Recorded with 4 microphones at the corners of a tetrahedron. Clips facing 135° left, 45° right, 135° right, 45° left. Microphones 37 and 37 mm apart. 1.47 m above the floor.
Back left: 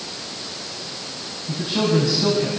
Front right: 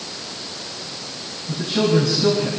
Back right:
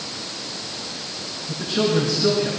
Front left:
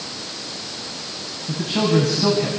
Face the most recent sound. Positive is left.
turn(degrees=70)